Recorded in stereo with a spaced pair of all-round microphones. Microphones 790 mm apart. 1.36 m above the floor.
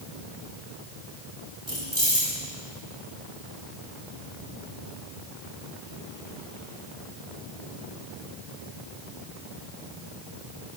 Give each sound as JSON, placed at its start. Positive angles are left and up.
{"t": 1.7, "sound": "keys jangling", "side_deg": 30, "distance_m": 7.0}